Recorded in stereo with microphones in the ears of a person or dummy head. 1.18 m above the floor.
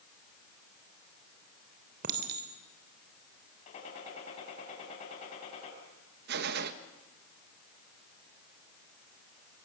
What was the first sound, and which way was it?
A clink, 55° right (ahead or behind).